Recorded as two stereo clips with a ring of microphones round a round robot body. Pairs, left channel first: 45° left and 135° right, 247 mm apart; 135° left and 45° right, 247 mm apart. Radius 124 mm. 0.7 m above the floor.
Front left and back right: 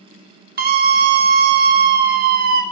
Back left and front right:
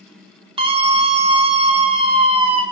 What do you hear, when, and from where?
0.6 s a scream: 105° right, 1.4 m